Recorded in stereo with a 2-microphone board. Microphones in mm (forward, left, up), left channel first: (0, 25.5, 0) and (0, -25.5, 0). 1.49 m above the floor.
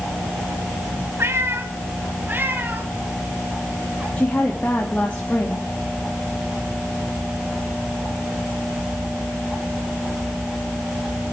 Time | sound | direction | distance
1.2 | a cat meowing | 55° right (ahead or behind) | 2 m
4.2 | a woman speaking | 25° left (ahead or behind) | 2.5 m